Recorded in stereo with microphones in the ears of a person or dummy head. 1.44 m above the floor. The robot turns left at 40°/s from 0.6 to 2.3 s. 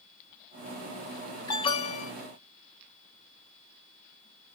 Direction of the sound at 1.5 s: 25° left (ahead or behind).